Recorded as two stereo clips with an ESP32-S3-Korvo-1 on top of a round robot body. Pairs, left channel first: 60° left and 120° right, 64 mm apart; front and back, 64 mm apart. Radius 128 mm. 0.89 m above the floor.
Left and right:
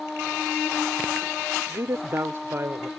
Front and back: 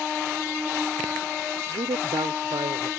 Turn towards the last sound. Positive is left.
turn(degrees=-170)